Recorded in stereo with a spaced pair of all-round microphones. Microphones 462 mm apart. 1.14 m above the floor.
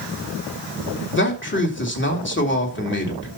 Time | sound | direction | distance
1.1 | a man speaking | 25° left (ahead or behind) | 3 m